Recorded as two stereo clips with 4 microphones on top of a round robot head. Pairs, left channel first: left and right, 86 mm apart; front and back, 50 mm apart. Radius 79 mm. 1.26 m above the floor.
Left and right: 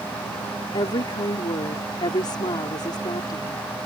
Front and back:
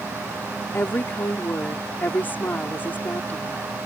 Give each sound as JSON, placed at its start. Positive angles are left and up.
{"t": 0.7, "sound": "a woman speaking", "azimuth_deg": 50}